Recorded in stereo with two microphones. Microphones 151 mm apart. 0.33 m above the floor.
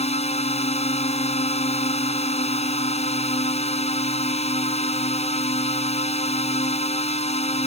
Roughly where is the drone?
Left.